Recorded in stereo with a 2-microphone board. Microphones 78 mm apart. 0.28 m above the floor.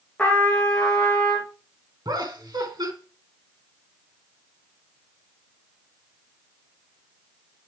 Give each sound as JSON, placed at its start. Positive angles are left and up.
{"t": 0.2, "sound": "a trumpet", "side_deg": 10, "distance_m": 2.5}
{"t": 2.0, "sound": "laughter", "side_deg": -60, "distance_m": 3.0}